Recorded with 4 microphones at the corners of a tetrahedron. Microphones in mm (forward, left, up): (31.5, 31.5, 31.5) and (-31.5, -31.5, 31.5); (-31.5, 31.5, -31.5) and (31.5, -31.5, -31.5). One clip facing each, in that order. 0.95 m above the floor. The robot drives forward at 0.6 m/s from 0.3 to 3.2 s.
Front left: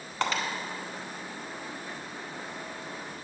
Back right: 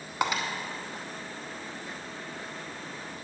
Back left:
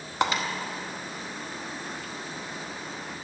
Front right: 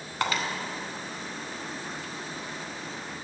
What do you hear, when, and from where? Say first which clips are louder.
0.2 s breaking glass: back right 1 dB, back left 3 dB; 170° left, 0.9 m